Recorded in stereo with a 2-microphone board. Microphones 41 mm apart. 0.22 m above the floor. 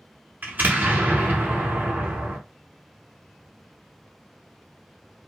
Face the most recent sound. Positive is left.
turn(degrees=-45)  # may be behind; listen again after turning